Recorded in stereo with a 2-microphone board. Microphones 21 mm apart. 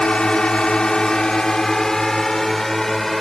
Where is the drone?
65° left (ahead or behind); by 3.2 s 20° left (ahead or behind).